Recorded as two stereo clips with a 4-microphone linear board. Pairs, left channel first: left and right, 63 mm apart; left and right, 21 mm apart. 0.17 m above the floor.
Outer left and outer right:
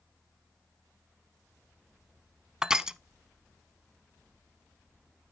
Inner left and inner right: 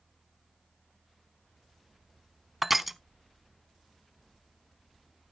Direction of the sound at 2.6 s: 10° right (ahead or behind).